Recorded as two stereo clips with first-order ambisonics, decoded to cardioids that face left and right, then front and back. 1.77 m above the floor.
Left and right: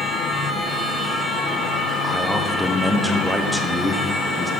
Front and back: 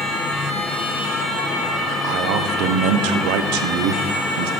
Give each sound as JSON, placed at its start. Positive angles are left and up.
{"t": 2.0, "sound": "a man speaking", "azimuth_deg": 180, "distance_m": 1.0}